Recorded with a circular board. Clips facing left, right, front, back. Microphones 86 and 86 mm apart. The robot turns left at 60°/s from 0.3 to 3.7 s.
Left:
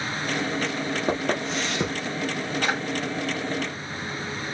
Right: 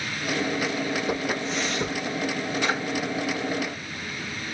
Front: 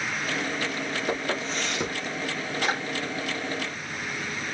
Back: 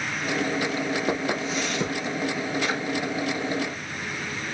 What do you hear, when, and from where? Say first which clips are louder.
1.1 s footsteps: left 2 dB, back 3 dB; 130° left, 2.5 m; by 1.9 s 75° left, 2.5 m
2.6 s a drawer: even, front 2 dB; 45° left, 3.5 m; by 2.8 s 35° left, 3.5 m